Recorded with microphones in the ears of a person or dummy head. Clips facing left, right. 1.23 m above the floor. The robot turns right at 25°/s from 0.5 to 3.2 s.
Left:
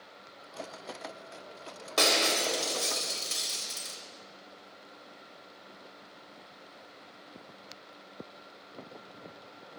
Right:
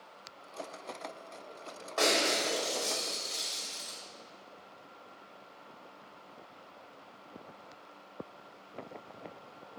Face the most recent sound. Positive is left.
turn(degrees=85)